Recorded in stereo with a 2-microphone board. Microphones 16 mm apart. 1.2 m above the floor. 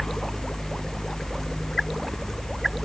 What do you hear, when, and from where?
Only background noise.